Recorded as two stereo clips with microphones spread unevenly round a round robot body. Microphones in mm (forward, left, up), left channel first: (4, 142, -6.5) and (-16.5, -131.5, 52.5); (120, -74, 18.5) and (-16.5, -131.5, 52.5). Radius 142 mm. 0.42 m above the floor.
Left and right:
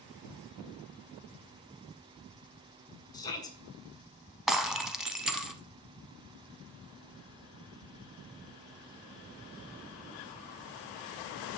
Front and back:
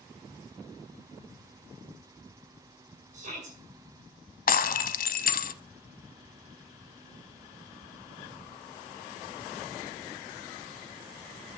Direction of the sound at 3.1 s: 150° left.